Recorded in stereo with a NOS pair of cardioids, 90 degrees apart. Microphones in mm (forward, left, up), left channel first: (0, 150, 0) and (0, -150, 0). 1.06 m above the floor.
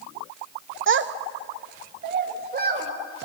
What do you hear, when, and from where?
0.9 s a child speaking: 40° right, 0.9 m; by 2.9 s 30° right, 3.5 m